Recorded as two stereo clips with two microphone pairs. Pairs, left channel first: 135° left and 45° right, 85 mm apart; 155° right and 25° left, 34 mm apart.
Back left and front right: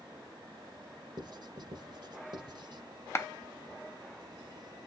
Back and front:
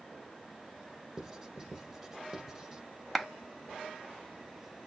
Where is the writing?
40° right, 0.7 m.